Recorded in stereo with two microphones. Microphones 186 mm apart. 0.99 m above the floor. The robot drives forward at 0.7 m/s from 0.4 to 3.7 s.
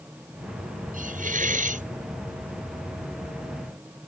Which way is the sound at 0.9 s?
45° right (ahead or behind).